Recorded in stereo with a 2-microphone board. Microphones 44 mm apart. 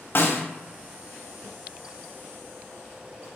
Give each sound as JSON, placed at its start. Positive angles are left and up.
{"t": 0.1, "sound": "a snare drum", "side_deg": 50, "distance_m": 0.7}